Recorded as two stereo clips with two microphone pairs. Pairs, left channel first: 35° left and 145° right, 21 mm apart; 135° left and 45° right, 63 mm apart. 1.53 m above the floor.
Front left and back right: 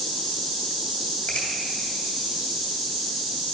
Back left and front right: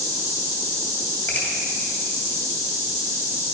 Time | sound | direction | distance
1.3 | a finger snap | 75° left | 3 m